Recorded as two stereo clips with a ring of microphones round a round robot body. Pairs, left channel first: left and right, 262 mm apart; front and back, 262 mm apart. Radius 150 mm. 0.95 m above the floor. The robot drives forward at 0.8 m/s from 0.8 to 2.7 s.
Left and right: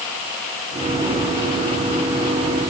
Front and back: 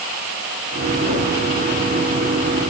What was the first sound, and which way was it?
Only background noise.